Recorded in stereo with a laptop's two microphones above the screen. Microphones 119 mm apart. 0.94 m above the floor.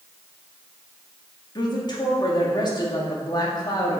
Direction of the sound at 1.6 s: 35° left (ahead or behind).